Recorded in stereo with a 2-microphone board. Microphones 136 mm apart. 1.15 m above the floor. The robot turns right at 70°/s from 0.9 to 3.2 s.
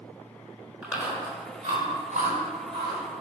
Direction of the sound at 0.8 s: 5° right (ahead or behind).